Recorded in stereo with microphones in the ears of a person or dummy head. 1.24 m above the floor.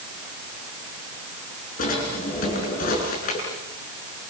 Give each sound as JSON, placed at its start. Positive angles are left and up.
{"t": 1.8, "sound": "a drawer", "side_deg": 50, "distance_m": 8.0}